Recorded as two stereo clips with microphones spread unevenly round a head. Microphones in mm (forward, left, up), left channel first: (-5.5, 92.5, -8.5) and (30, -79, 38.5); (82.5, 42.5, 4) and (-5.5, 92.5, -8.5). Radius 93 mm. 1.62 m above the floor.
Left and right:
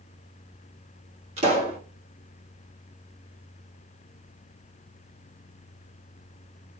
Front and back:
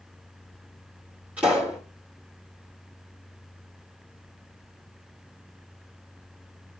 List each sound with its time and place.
1.4 s a pop: 125° right, 2 m